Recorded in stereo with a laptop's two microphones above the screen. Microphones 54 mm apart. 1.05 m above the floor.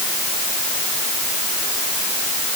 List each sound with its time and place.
Only background noise.